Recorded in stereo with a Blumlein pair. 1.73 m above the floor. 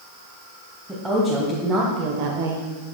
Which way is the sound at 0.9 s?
Straight ahead.